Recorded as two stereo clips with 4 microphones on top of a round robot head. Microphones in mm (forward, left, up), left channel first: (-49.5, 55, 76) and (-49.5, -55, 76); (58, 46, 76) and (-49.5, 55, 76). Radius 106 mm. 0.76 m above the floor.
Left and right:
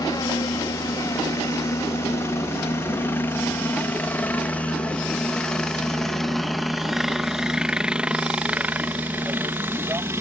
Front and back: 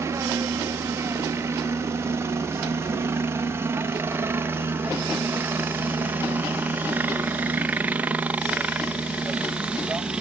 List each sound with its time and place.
0.0 s a helicopter: 125° left; by 10.2 s 115° right